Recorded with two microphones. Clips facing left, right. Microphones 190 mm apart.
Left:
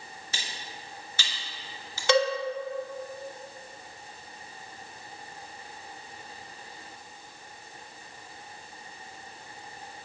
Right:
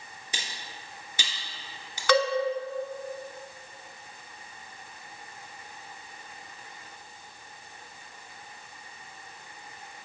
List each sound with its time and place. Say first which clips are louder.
0.3 s cutlery clinking: right 1 dB; 15° right (ahead or behind), 1.2 m
2.1 s a cowbell: even; 25° left (ahead or behind), 0.6 m